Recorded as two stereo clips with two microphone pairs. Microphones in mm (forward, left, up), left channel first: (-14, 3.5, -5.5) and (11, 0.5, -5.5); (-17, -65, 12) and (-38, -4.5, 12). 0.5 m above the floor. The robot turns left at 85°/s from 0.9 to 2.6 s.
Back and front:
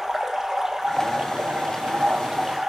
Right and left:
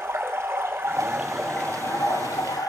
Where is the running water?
60° left, 4 m; by 2.7 s 85° right, 4 m.